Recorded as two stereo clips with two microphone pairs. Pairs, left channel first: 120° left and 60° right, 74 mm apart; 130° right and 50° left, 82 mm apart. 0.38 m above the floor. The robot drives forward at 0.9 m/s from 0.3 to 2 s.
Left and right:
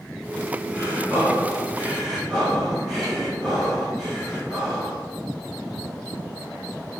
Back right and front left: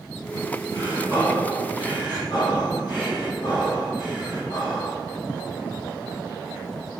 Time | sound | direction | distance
0.7 | breathing | 125° right | 1.9 m